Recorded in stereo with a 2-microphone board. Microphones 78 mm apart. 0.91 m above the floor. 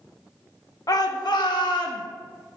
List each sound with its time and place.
0.9 s a shout: 50° left (ahead or behind), 0.6 m; by 2.0 s 75° left (ahead or behind), 1.4 m